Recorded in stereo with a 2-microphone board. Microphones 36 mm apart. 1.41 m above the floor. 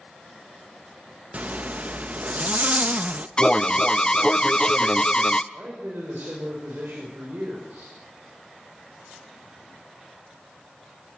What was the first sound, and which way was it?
A zipper, 50° right (ahead or behind).